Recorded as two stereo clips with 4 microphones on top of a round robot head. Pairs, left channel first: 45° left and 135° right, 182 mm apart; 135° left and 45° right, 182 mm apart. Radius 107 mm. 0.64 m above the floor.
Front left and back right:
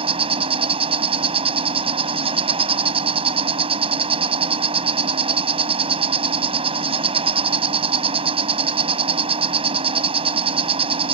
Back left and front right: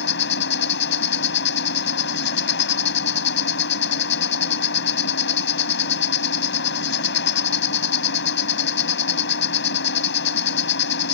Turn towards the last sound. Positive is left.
turn(degrees=165)